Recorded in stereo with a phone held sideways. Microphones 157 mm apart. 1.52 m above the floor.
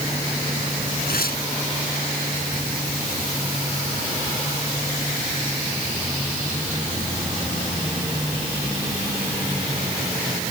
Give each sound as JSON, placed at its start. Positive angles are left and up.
{"t": 1.1, "sound": "tearing paper", "side_deg": 75}